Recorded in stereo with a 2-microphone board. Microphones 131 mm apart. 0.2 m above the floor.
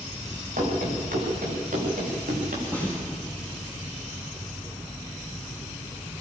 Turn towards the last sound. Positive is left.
turn(degrees=-20)  # may be behind; listen again after turning